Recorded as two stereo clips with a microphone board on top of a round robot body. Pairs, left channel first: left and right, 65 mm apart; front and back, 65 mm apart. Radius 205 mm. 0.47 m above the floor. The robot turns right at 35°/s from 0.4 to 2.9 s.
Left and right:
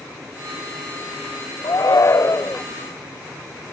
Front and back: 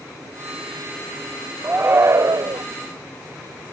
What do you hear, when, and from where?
1.6 s a shout: 115° left; by 2.6 s 150° left